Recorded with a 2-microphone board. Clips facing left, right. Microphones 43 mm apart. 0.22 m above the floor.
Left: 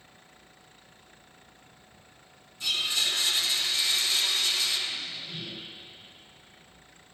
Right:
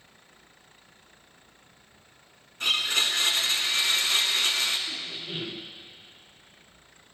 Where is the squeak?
70° right (ahead or behind), 2 m.